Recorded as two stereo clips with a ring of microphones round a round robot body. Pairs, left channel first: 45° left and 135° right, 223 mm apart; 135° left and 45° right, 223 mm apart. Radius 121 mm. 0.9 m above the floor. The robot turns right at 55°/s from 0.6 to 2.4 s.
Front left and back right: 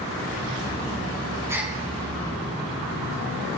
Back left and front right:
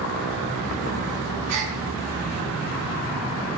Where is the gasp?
55° right, 4 m; by 1.8 s 45° right, 4 m.